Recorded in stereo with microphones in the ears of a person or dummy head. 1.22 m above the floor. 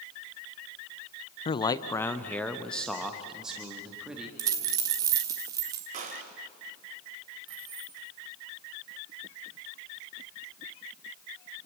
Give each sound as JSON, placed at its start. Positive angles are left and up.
{"t": 1.4, "sound": "a man speaking", "side_deg": 30, "distance_m": 0.5}
{"t": 4.4, "sound": "a dropped coin", "side_deg": -15, "distance_m": 1.0}
{"t": 5.9, "sound": "a gunshot", "side_deg": -40, "distance_m": 2.5}
{"t": 7.5, "sound": "keys jangling", "side_deg": -30, "distance_m": 5.0}